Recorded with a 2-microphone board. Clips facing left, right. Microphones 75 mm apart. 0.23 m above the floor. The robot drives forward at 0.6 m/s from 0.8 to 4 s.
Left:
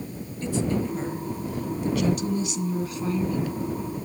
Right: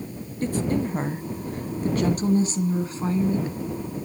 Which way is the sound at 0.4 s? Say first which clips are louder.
Right 2 dB; 45° right (ahead or behind).